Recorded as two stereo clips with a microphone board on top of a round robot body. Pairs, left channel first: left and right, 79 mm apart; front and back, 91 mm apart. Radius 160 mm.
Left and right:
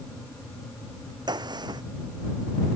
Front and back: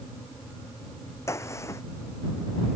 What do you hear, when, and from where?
1.3 s a gunshot: 60° right